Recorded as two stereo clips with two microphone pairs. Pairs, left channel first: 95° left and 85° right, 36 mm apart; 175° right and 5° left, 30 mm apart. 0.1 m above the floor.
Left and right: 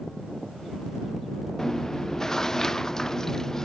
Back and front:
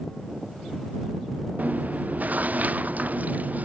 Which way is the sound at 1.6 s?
25° left.